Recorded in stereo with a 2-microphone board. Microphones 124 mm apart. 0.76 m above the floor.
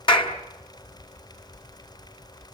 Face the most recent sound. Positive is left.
turn(degrees=50)  # may be behind; listen again after turning